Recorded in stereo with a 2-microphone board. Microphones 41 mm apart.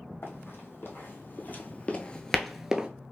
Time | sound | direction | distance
0.2 | running footsteps | 60° left (ahead or behind) | 1.3 m